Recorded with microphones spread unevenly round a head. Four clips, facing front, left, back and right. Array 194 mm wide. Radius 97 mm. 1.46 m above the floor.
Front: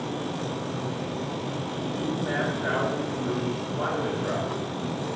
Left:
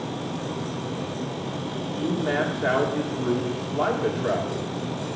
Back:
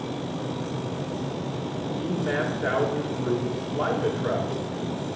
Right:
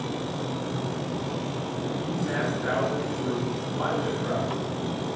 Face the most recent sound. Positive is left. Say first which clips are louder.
# left 7 dB, back 1 dB
turn(degrees=120)